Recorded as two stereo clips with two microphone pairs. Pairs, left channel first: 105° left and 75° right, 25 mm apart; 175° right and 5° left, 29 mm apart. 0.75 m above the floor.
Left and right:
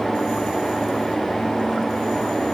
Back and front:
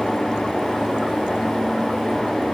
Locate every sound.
Only background noise.